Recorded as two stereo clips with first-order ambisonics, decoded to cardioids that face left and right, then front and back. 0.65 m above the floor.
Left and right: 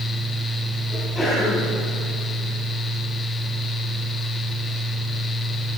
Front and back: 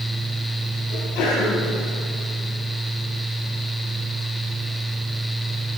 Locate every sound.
0.9 s a sneeze: 10° left, 5 m